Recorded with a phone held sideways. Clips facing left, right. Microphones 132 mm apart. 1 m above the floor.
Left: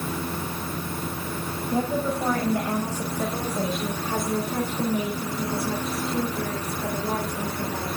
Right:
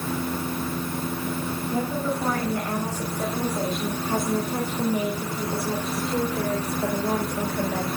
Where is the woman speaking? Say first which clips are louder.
Left 3 dB; 25° left (ahead or behind), 5.5 m; by 7.9 s 55° right (ahead or behind), 5 m.